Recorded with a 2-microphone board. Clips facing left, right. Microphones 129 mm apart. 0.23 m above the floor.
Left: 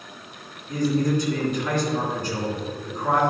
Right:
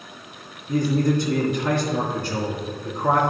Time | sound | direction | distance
0.7 | a man speaking | 55° right (ahead or behind) | 3 m